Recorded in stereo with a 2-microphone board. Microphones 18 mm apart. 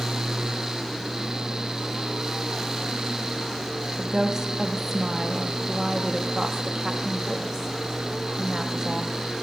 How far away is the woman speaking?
About 1.0 m.